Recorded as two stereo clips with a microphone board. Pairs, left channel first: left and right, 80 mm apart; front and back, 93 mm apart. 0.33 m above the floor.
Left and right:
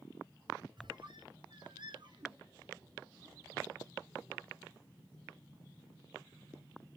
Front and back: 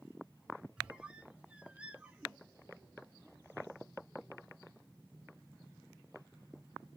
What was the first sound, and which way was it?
A squeak, 100° right.